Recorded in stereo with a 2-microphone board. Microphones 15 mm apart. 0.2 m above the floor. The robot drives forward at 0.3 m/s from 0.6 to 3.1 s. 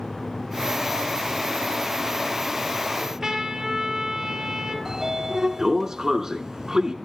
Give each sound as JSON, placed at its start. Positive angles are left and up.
{"t": 3.0, "sound": "a trumpet", "side_deg": -15, "distance_m": 3.0}
{"t": 4.8, "sound": "a sliding door", "side_deg": -30, "distance_m": 0.9}